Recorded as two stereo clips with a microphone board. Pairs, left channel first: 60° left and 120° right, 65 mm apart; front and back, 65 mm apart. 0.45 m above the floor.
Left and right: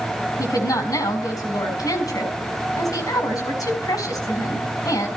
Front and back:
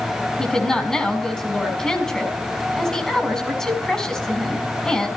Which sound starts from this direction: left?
A woman speaking, at 0.4 s.